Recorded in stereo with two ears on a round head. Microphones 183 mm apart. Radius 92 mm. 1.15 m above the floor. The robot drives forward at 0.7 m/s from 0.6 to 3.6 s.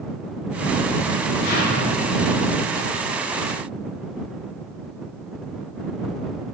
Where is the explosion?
50° left (ahead or behind), 4 m; by 2.3 s 55° left (ahead or behind), 4 m.